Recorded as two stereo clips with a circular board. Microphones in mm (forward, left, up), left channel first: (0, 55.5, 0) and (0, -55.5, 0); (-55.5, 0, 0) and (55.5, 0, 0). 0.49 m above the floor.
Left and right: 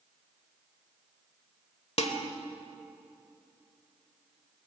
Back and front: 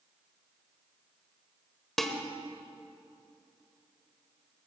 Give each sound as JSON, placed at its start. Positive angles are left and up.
{"t": 2.0, "sound": "dishes clattering", "azimuth_deg": 95, "distance_m": 1.3}